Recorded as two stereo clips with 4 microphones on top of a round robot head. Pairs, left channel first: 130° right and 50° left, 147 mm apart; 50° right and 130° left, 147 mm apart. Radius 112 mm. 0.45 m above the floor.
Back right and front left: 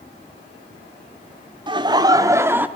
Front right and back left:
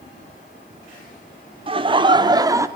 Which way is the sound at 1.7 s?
95° left.